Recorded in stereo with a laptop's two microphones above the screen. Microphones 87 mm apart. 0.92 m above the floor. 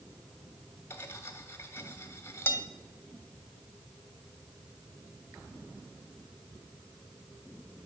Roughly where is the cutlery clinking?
Left.